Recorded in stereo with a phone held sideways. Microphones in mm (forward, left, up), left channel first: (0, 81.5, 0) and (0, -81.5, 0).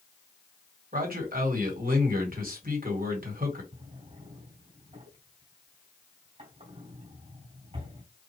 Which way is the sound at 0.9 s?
65° right (ahead or behind).